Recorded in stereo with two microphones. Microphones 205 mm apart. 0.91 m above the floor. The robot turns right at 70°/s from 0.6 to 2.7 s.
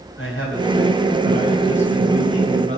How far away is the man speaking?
About 4.5 m.